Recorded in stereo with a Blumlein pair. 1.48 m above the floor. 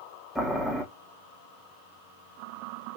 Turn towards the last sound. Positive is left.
turn(degrees=5)